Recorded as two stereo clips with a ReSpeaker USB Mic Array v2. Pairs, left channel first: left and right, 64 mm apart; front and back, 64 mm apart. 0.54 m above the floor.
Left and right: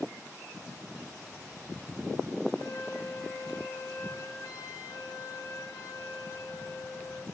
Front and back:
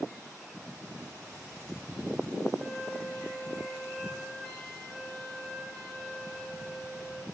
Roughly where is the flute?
Left.